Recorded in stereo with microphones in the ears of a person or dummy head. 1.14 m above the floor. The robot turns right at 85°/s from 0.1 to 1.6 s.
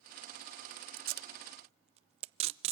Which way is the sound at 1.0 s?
40° right (ahead or behind).